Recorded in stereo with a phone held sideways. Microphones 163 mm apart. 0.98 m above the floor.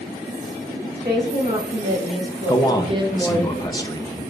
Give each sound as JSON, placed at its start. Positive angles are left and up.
{"t": 0.9, "sound": "a woman speaking", "side_deg": -60, "distance_m": 3.0}
{"t": 2.5, "sound": "a man speaking", "side_deg": 25, "distance_m": 0.7}